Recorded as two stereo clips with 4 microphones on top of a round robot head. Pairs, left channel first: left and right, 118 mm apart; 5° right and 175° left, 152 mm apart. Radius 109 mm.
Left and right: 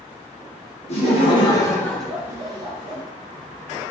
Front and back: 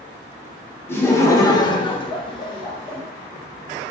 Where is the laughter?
70° left, 0.9 m; by 3.0 s 65° right, 0.8 m.